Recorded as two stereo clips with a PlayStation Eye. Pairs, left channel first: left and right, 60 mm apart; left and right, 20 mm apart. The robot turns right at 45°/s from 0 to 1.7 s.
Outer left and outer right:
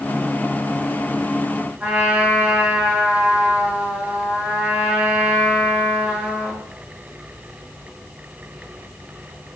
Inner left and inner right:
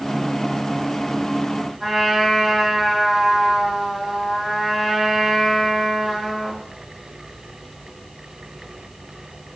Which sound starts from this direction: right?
A trumpet, at 1.8 s.